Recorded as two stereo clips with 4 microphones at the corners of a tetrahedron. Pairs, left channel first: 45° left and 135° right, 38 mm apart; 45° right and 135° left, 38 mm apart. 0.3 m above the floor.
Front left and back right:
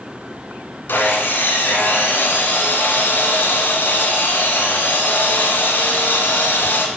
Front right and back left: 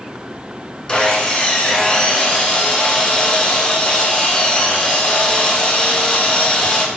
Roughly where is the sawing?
Ahead.